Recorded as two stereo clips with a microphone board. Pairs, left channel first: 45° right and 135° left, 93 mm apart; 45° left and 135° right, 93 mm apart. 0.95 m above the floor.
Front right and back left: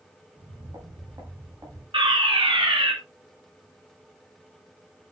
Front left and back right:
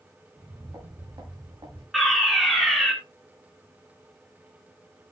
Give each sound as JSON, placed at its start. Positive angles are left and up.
{"t": 0.3, "sound": "footsteps", "azimuth_deg": 175, "distance_m": 7.0}
{"t": 1.9, "sound": "a fire alarm", "azimuth_deg": 135, "distance_m": 4.0}